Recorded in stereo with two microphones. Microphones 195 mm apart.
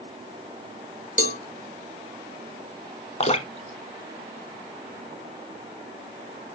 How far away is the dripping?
About 0.9 m.